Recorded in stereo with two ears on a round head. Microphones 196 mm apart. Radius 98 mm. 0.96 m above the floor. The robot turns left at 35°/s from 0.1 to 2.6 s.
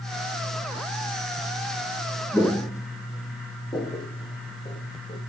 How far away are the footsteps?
About 1.0 m.